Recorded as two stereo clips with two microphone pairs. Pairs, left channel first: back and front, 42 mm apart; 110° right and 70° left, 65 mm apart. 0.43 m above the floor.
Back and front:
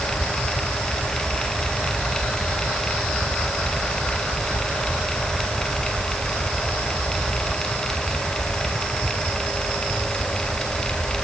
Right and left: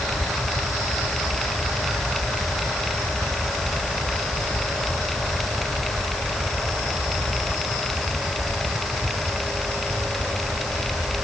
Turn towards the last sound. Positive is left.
No sound to turn to.